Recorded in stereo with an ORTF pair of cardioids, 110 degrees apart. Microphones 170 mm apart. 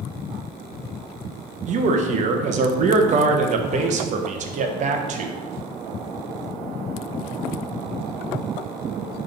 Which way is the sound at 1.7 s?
50° right.